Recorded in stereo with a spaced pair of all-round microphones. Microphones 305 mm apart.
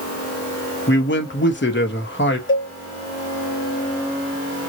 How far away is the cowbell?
About 0.7 m.